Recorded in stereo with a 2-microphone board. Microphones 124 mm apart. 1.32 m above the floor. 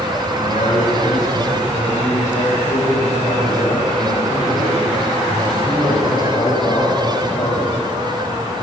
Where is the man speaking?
85° left, 8 m; by 7.8 s 35° left (ahead or behind), 7.5 m.